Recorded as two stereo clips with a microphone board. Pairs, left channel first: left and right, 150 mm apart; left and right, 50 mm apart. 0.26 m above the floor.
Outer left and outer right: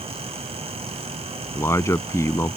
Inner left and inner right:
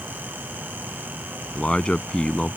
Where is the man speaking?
20° left (ahead or behind).